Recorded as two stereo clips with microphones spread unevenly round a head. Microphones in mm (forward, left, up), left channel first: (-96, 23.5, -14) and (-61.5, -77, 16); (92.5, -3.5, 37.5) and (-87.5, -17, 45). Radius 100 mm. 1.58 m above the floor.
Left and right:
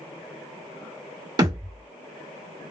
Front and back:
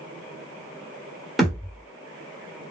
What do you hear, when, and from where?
1.4 s a thud: 90° right, 1.8 m